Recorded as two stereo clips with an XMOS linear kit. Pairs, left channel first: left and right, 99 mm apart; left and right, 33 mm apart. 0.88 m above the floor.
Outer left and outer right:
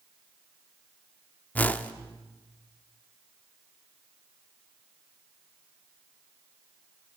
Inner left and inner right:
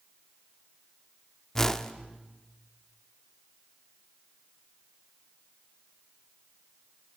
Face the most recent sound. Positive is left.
turn(degrees=15)  # may be behind; listen again after turning